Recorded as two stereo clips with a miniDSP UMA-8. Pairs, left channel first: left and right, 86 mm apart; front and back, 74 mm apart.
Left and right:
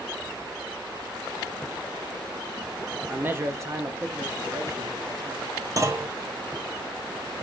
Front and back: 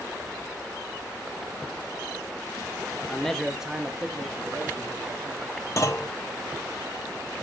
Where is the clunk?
45° right, 0.8 m.